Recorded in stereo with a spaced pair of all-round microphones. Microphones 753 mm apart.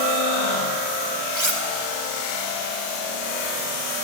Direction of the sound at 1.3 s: 35° right (ahead or behind).